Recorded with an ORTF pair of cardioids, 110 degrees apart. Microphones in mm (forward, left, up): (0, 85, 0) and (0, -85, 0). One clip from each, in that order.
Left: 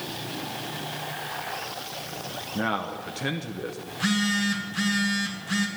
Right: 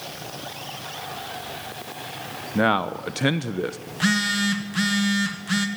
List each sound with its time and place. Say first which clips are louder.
2.5 s a man speaking: right 8 dB; 40° right, 0.8 m
3.9 s a phone buzzing: right 3 dB; 30° right, 2 m